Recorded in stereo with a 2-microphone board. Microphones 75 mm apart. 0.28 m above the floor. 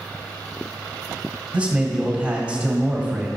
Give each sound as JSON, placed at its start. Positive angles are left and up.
{"t": 1.5, "sound": "a man speaking", "side_deg": -15, "distance_m": 1.6}